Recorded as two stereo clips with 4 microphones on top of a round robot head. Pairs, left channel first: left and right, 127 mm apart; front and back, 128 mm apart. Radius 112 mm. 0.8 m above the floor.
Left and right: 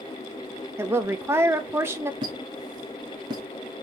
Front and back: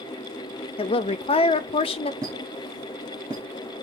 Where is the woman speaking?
25° right, 0.5 m.